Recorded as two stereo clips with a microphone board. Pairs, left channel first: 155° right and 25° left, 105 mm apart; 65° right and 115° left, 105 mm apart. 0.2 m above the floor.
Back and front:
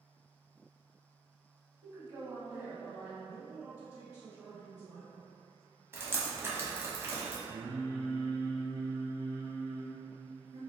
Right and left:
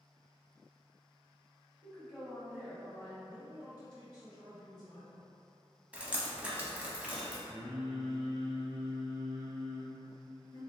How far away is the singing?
About 1.2 m.